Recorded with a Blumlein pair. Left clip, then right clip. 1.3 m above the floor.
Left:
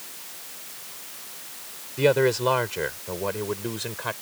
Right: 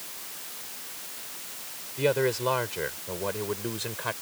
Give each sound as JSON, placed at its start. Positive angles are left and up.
{"t": 2.0, "sound": "a man speaking", "azimuth_deg": 15}